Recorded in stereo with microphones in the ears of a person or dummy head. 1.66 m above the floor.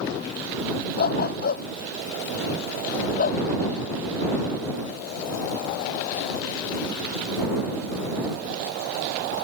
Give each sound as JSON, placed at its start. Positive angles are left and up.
{"t": 1.0, "sound": "a dog barking", "side_deg": 60}